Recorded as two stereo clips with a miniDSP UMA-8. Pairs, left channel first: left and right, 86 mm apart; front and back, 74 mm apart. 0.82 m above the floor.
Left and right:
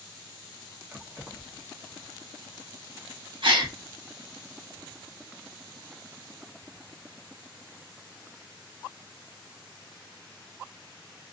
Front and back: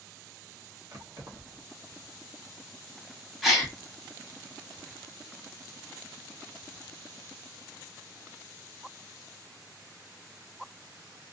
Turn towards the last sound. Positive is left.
turn(degrees=-90)